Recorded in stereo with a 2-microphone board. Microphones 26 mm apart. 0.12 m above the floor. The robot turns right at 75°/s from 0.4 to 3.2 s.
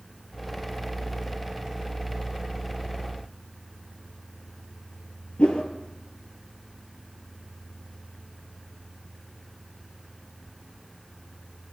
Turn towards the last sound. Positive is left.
turn(degrees=65)  # may be behind; listen again after turning